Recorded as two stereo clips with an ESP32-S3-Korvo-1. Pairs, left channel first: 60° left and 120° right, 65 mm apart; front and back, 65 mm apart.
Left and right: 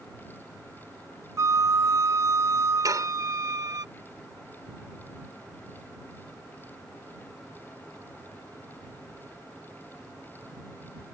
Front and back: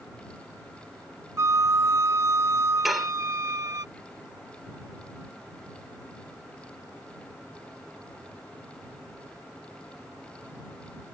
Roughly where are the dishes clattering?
Right.